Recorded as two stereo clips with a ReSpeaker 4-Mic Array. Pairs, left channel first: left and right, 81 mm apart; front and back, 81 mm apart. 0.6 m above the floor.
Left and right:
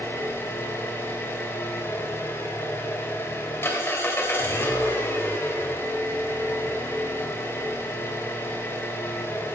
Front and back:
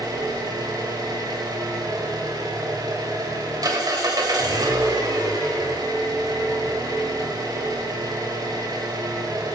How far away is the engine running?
About 2.5 m.